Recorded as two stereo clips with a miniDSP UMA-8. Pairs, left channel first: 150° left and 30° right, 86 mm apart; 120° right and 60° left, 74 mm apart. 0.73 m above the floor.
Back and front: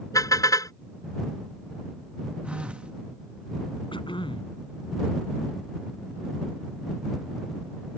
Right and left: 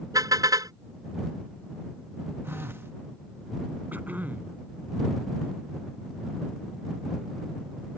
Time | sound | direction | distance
0.1 | a car horn | 100° left | ?
2.4 | a phone buzzing | 35° left | ?
3.9 | throat clearing | 130° left | ?